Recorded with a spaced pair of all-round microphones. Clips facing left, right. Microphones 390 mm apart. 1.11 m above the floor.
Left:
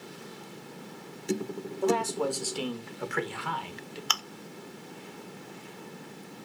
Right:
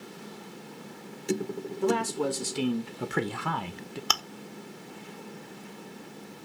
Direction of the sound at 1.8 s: 25° right (ahead or behind).